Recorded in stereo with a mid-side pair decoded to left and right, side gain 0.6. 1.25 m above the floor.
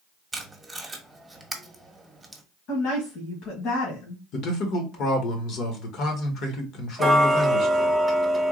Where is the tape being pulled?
10° right, 1.3 m.